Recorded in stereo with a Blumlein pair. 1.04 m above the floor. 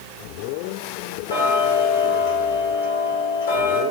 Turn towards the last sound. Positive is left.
turn(degrees=70)